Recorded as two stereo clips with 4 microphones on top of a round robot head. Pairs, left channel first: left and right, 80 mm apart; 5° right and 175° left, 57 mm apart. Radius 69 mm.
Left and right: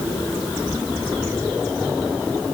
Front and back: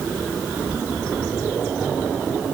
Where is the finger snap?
No finger snap in this recording.